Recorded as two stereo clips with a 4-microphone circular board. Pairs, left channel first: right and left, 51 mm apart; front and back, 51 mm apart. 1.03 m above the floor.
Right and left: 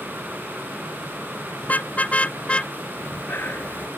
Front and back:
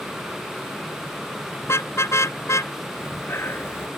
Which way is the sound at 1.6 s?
30° right.